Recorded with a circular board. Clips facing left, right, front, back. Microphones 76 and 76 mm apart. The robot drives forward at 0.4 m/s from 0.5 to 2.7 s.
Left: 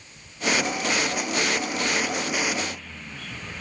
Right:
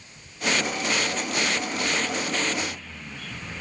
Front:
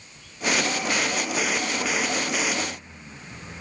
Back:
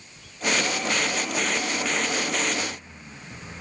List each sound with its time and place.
Only background noise.